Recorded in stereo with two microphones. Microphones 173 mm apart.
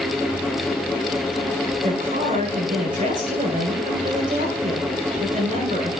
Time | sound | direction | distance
1.8 | a woman speaking | 50° right (ahead or behind) | 8 m